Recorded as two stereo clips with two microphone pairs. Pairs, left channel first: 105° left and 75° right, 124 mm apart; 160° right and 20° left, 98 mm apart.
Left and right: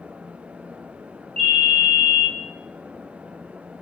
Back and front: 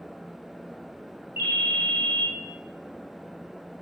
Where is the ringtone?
45° right, 1.6 m.